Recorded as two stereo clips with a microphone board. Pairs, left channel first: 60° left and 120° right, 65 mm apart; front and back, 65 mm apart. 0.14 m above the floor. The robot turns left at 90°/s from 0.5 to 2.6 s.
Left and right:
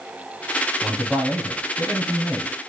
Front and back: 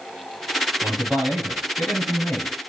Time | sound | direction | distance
0.8 | a man speaking | 160° left | 1.8 m